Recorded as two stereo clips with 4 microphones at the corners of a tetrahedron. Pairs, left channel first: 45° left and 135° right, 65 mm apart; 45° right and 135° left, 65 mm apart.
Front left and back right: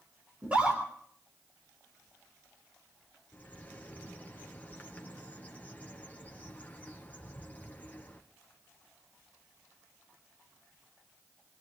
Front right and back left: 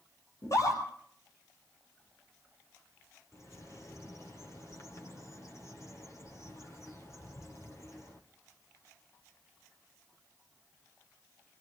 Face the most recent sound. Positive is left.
turn(degrees=-15)